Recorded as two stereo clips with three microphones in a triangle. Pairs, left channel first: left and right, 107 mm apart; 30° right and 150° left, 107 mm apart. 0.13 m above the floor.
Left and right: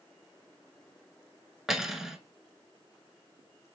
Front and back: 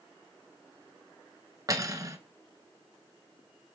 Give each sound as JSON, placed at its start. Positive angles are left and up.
{"t": 1.7, "sound": "cutlery clinking", "azimuth_deg": -175, "distance_m": 0.8}